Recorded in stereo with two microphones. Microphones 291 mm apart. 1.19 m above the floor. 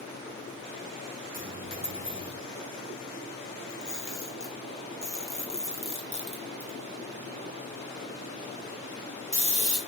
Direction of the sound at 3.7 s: 40° left (ahead or behind).